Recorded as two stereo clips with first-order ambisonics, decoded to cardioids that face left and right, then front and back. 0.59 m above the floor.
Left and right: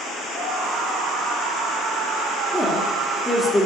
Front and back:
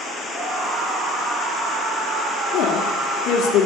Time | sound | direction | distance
0.3 | a scream | 135° right | 5 m
2.5 | a woman speaking | straight ahead | 1.7 m